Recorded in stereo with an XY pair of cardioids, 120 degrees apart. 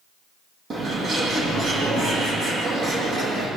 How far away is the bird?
About 9 m.